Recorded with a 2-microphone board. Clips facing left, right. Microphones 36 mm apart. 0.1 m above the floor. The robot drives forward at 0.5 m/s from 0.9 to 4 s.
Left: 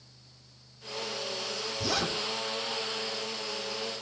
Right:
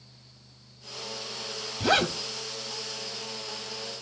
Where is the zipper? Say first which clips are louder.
Right 8 dB; 50° right (ahead or behind), 2.5 m.